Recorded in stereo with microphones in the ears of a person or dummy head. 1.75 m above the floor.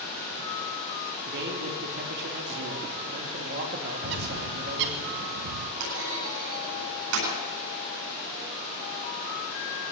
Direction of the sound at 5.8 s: 80° right.